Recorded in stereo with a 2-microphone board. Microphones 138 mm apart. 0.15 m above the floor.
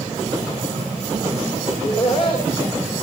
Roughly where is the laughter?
Left.